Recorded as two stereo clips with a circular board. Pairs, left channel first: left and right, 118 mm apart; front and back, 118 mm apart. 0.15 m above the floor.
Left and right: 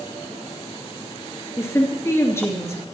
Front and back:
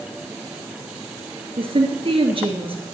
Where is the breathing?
No breathing in this recording.